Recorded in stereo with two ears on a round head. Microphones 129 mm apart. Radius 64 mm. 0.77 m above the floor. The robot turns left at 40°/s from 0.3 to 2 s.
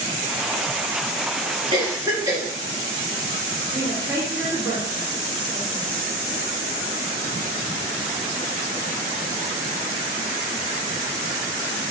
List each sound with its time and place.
1.7 s a cough: 30° right (ahead or behind), 1.3 m; by 2.4 s 20° right (ahead or behind), 1.3 m
3.7 s a woman speaking: 30° right (ahead or behind), 1.5 m